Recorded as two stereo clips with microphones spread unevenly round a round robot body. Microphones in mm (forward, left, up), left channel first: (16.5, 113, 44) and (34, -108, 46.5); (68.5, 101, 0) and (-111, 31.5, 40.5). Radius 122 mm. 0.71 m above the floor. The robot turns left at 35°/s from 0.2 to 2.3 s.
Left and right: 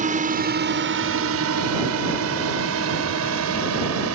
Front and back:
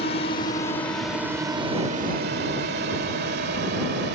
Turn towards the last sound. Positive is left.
turn(degrees=-105)